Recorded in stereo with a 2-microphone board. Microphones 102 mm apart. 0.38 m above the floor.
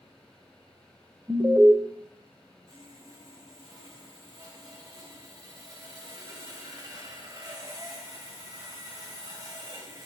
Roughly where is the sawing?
Right.